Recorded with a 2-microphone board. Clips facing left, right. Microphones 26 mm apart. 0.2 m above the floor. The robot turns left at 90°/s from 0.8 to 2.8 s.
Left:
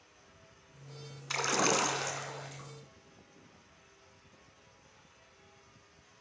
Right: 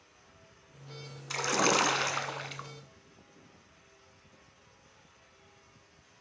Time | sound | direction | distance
1.3 | a splash | 15° left | 0.7 m